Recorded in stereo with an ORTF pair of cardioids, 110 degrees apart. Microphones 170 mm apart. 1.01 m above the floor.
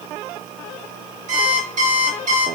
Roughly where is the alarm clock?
Ahead right.